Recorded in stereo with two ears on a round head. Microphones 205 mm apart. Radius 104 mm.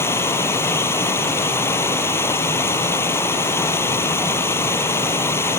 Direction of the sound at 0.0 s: 10° left (ahead or behind).